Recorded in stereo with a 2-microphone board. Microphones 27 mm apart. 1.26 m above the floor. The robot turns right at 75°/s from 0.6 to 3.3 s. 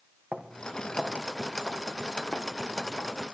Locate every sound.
0.3 s footsteps: 70° right (ahead or behind), 3 m; by 3.1 s 75° left (ahead or behind), 6.5 m